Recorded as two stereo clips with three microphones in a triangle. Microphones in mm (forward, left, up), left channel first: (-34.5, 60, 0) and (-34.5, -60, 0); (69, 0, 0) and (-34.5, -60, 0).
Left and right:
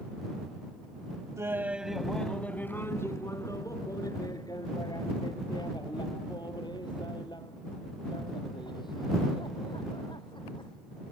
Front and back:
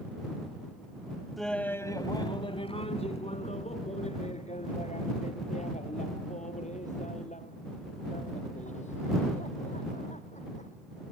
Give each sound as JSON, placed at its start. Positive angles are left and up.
{"t": 1.4, "sound": "laughter", "azimuth_deg": -60}